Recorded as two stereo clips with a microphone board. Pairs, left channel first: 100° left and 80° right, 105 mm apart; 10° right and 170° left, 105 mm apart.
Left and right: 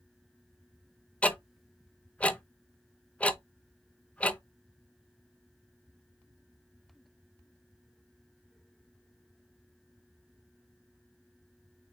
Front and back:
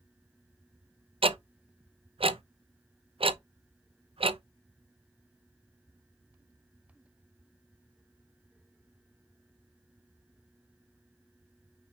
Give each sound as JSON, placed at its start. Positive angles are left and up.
{"t": 1.2, "sound": "ticking", "azimuth_deg": 175, "distance_m": 0.5}